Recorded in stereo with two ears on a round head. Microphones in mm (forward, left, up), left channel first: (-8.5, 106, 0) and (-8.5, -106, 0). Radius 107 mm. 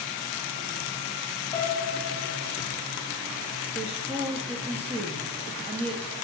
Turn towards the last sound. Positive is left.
turn(degrees=-25)  # may be behind; listen again after turning